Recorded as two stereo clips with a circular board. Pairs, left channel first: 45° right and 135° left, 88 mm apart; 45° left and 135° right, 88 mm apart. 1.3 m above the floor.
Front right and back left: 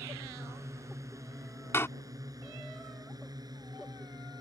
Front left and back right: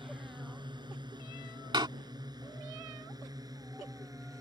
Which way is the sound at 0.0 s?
165° right.